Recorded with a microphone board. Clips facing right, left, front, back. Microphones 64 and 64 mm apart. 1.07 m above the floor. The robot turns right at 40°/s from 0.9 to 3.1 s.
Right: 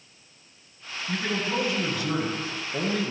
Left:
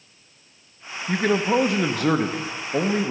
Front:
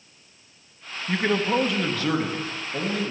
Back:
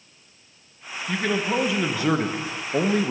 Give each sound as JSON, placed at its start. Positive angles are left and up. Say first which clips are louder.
{"t": 1.1, "sound": "a man speaking", "louder": "left 8 dB, front 1 dB", "azimuth_deg": 70, "distance_m": 1.0}